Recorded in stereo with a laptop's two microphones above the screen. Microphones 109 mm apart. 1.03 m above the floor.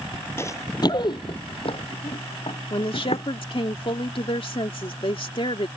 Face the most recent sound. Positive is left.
turn(degrees=55)  # may be behind; listen again after turning